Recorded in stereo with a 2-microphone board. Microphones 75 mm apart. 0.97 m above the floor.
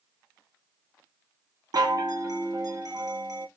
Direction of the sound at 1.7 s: 55° right (ahead or behind).